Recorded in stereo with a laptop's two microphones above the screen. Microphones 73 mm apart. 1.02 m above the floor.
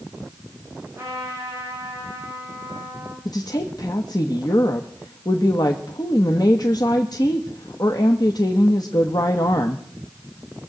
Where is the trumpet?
30° right (ahead or behind), 7.5 m.